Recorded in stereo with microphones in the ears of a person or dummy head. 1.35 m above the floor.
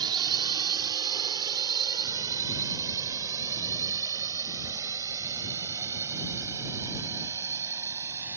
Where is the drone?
25° right (ahead or behind); by 8.4 s 15° right (ahead or behind).